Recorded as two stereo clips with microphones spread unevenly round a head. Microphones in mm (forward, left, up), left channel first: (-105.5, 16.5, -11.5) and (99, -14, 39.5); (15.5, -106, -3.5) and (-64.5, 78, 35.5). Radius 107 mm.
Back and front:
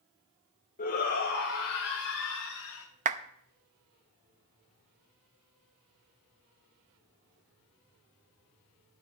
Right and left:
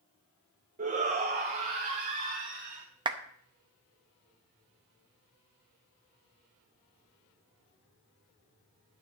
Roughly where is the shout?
Behind.